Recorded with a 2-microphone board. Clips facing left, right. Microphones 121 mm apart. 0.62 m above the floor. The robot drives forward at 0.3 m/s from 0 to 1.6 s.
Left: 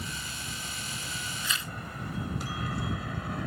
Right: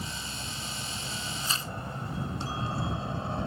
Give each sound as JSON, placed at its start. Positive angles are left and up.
{"t": 0.0, "sound": "a helicopter", "side_deg": -30}
{"t": 1.4, "sound": "tearing paper", "side_deg": -35}